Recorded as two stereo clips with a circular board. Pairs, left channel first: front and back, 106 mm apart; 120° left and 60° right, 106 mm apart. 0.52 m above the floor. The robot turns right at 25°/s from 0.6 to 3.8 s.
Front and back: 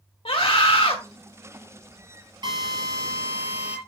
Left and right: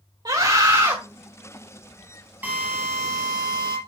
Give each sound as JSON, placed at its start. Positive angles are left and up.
{"t": 0.2, "sound": "a scream", "azimuth_deg": -15, "distance_m": 1.7}
{"t": 2.4, "sound": "a drill", "azimuth_deg": -135, "distance_m": 4.0}